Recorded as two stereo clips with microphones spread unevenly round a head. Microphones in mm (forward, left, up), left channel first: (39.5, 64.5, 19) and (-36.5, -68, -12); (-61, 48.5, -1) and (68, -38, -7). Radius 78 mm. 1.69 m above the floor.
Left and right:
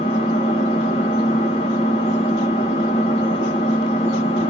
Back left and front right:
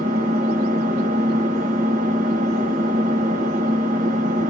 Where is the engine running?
5° left, 1.4 m.